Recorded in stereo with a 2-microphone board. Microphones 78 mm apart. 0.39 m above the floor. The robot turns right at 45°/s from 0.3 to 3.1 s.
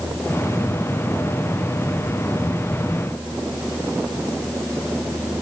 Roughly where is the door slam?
No door slam in this recording.